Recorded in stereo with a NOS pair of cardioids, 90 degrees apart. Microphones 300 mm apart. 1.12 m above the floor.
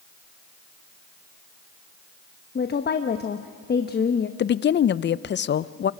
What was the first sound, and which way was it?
A woman speaking, 35° left.